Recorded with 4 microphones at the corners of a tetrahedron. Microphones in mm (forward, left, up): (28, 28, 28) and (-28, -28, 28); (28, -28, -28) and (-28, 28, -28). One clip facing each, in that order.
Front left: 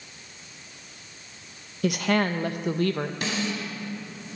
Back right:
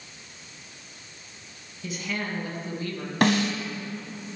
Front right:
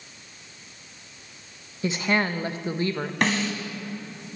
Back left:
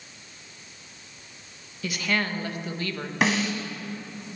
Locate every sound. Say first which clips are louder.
1.8 s a woman speaking: front left 9 dB, front right 3 dB; 20° left, 0.9 m
3.2 s a snare drum: back right 11 dB, back left 1 dB; 140° right, 1.7 m